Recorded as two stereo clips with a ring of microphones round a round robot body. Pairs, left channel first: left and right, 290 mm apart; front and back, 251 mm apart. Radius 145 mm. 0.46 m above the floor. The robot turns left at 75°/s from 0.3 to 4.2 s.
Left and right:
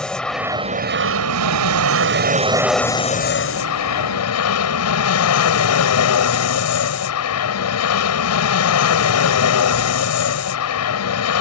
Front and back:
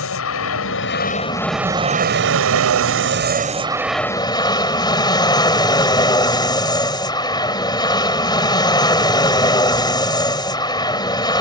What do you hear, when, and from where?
0.0 s an aircraft: 5° left; by 11.4 s 70° left